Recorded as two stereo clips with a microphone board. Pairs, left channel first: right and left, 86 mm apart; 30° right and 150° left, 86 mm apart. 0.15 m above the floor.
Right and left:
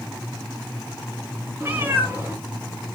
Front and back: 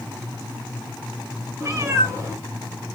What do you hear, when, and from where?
1.6 s a cat meowing: 135° left, 0.8 m